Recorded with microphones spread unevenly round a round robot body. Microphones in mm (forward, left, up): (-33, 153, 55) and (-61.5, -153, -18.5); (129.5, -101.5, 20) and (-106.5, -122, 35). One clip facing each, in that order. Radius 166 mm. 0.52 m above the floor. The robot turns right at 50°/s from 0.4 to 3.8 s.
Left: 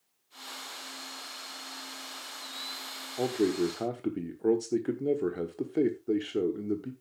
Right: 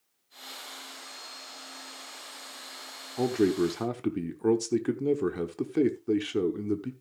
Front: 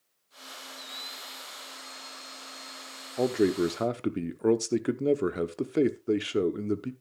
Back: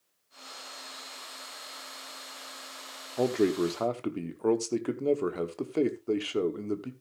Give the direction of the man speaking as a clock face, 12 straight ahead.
3 o'clock.